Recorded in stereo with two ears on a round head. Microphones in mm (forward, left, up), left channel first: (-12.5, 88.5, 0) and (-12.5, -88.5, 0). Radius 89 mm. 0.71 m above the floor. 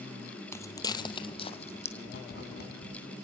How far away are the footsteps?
About 1.3 m.